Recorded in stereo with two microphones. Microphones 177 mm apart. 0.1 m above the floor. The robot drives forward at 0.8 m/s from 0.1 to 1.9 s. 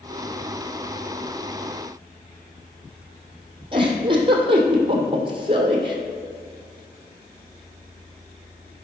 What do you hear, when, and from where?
3.7 s a giggle: 30° right (ahead or behind), 1.9 m